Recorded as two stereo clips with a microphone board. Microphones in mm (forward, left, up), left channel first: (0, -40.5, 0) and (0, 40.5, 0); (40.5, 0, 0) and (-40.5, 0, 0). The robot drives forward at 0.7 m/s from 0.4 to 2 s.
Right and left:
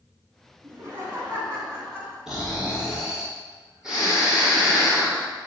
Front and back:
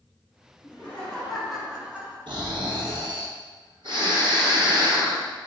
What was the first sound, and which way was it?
Laughter, 50° left.